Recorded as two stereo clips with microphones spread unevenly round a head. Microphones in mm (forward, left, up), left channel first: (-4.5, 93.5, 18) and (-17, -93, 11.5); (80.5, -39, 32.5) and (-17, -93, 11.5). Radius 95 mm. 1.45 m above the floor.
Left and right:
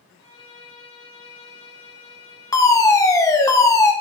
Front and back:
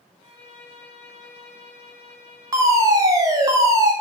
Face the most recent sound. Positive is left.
turn(degrees=160)